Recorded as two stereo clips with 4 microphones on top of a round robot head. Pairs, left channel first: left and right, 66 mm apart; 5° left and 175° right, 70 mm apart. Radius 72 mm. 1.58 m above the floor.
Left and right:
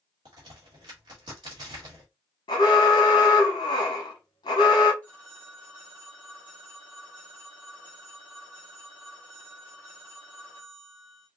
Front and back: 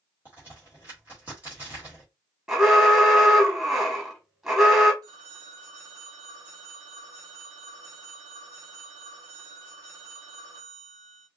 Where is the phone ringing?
165° left, 0.9 m.